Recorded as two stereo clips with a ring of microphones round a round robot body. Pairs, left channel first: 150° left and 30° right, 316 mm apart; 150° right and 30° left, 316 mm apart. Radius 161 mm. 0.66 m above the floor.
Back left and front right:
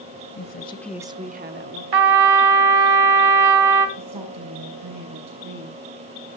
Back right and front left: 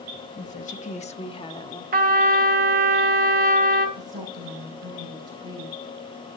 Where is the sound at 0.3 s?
155° left, 1.1 m; by 1.8 s 75° right, 1.7 m.